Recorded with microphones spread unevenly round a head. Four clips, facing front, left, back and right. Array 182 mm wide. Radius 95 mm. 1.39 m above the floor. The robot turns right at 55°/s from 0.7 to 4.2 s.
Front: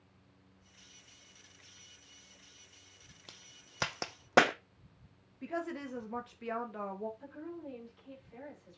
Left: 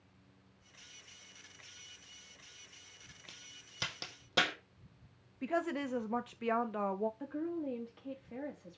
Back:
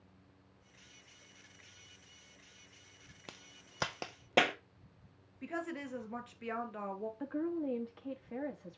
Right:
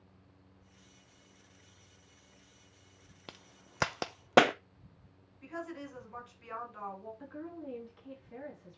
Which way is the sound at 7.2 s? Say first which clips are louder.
Left 6 dB, back 9 dB; 160° left.